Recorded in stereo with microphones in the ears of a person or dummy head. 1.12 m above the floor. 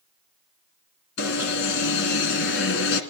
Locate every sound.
1.2 s an alarm: 75° left (ahead or behind), 3 m